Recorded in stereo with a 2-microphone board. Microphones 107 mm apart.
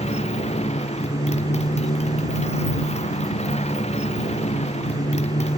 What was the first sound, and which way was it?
A motorcycle, 85° left.